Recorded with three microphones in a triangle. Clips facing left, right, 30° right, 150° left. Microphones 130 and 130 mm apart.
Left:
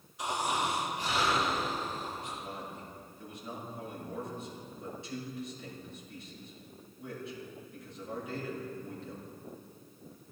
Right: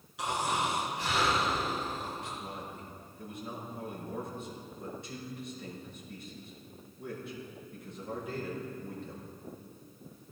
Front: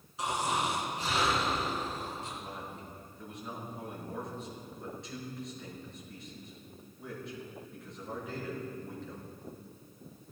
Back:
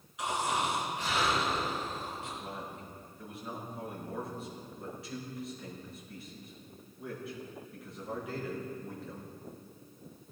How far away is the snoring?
About 4.5 m.